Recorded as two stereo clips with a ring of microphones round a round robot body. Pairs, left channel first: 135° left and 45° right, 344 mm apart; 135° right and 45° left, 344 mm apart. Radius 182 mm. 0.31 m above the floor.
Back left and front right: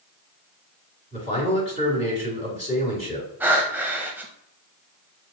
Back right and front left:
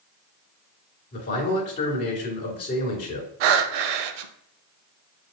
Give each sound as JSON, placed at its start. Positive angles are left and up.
{"t": 1.1, "sound": "a man speaking", "azimuth_deg": -175, "distance_m": 1.7}
{"t": 3.4, "sound": "breathing", "azimuth_deg": 40, "distance_m": 0.5}